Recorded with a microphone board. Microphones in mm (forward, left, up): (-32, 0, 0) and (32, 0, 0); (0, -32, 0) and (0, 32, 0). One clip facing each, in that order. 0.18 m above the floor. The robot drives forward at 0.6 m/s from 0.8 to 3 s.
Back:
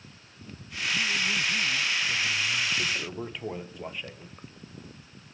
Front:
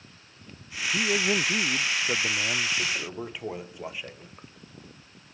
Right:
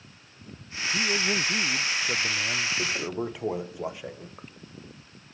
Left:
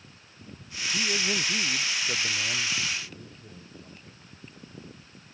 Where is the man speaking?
10° right.